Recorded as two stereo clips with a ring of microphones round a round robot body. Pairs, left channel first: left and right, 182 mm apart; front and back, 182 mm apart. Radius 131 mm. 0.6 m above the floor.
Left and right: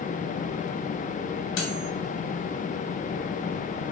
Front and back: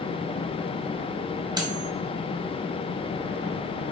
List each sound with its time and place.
1.6 s cutlery clinking: 110° left, 2 m